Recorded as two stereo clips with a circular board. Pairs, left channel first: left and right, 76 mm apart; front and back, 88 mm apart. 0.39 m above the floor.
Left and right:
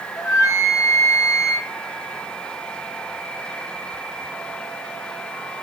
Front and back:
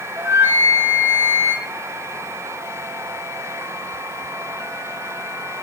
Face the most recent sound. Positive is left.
turn(degrees=120)